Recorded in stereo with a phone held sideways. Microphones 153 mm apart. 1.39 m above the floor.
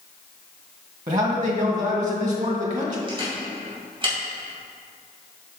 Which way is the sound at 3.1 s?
35° right (ahead or behind).